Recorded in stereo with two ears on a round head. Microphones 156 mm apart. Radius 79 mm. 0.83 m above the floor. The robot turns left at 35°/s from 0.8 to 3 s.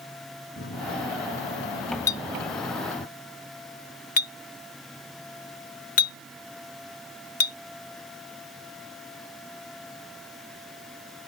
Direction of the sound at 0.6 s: 115° left.